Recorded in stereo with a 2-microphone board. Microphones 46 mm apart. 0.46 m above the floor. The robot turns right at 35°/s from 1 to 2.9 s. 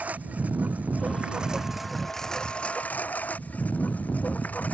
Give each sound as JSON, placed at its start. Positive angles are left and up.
{"t": 0.0, "sound": "a lawn mower", "azimuth_deg": -35}